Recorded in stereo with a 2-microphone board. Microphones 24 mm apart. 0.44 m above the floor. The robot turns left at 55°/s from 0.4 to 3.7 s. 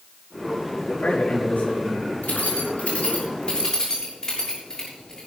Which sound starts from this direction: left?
Keys jangling, at 2.2 s.